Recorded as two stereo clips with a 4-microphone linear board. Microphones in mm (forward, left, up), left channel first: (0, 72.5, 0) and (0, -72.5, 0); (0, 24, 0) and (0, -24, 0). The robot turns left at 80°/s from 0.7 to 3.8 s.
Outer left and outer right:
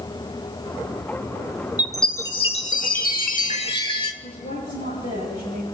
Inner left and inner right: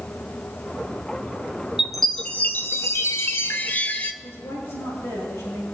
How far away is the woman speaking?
About 6 m.